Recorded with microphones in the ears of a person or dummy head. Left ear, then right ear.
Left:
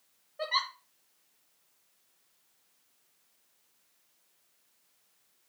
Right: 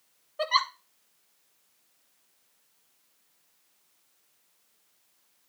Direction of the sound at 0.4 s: 35° right (ahead or behind).